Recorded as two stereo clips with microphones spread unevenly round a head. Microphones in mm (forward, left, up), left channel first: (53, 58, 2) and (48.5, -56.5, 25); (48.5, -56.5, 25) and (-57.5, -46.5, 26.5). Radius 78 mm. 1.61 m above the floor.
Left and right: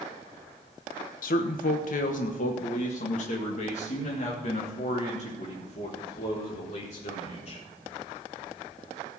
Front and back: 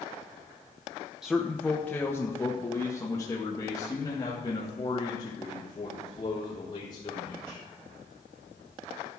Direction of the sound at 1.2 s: 85° left.